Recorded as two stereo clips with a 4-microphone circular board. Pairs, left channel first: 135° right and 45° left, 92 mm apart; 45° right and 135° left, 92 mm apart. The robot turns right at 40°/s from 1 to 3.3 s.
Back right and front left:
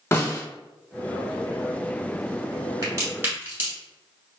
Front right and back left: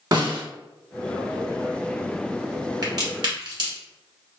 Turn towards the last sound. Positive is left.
turn(degrees=110)